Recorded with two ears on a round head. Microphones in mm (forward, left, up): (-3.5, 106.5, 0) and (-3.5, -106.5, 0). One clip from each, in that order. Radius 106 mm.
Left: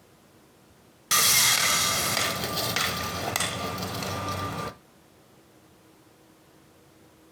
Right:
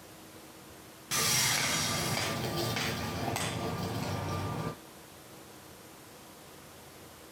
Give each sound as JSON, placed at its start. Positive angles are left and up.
{"t": 1.1, "sound": "sawing", "side_deg": 50, "distance_m": 0.8}